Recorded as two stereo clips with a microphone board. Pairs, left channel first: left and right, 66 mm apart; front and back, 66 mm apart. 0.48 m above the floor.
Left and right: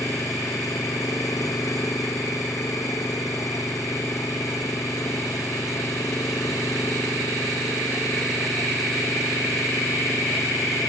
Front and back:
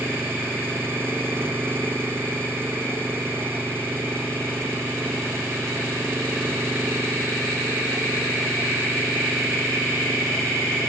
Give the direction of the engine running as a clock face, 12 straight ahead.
8 o'clock.